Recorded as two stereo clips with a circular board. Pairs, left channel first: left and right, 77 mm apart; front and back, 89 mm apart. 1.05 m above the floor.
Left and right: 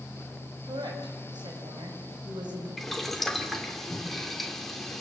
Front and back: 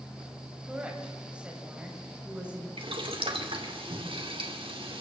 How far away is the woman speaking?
About 6.5 m.